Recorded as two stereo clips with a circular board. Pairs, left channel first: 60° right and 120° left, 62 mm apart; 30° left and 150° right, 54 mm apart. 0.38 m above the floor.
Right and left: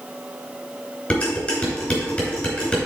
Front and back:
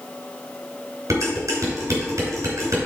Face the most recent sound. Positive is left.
turn(degrees=-135)